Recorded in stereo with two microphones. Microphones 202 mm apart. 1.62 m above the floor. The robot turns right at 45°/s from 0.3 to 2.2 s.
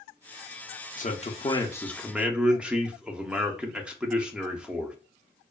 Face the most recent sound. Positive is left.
turn(degrees=-175)